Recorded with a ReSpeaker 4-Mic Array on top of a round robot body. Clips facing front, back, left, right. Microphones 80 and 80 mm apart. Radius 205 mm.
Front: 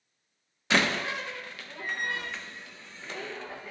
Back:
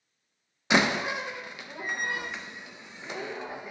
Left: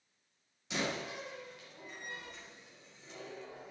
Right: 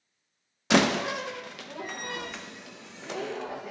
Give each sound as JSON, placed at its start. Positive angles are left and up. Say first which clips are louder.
{"t": 0.7, "sound": "a door slam", "louder": "back 2 dB, right 14 dB", "azimuth_deg": -105, "distance_m": 0.8}